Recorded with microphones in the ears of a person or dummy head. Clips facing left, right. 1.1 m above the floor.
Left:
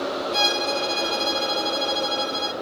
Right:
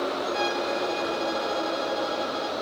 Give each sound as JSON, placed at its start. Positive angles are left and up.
{"t": 0.3, "sound": "a violin", "side_deg": 60, "distance_m": 0.8}